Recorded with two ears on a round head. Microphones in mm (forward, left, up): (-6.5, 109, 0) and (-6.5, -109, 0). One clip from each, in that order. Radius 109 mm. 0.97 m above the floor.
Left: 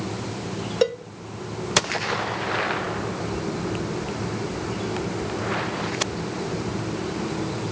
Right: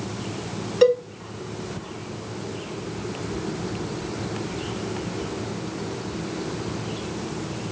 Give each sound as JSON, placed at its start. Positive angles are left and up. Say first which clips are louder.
{"t": 0.8, "sound": "a cowbell", "louder": "right 6 dB", "side_deg": 15, "distance_m": 0.9}